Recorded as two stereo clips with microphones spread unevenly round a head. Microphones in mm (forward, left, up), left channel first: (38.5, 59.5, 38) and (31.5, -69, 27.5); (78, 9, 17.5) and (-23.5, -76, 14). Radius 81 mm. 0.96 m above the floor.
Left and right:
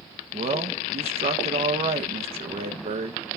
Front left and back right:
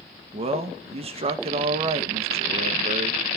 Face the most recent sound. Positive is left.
turn(degrees=-115)